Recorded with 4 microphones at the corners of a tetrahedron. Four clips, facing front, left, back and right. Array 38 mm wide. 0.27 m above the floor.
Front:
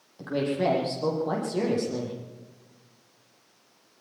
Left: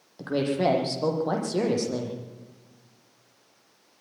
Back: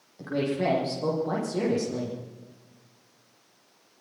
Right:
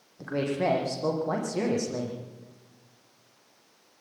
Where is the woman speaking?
85° left, 10 m.